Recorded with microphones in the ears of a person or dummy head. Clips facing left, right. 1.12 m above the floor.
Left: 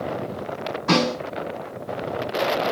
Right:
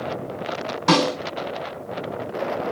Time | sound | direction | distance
0.9 | a snare drum | 75° right (ahead or behind) | 2 m